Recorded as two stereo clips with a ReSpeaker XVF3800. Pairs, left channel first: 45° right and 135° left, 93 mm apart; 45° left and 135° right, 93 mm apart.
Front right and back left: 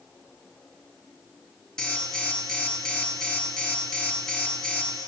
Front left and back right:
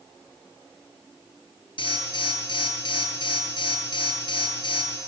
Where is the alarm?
35° left, 5 m.